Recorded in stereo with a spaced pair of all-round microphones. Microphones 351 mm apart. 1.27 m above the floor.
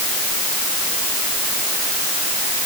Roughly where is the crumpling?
No crumpling in this recording.